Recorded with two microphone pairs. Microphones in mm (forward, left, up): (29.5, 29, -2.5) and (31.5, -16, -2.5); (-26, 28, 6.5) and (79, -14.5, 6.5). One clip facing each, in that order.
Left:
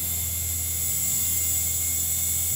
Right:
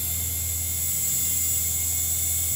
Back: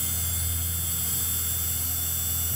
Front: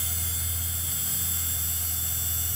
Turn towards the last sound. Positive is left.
No sound to turn to.